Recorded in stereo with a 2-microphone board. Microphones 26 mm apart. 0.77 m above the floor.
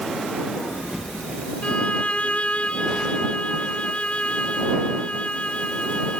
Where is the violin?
50° left (ahead or behind).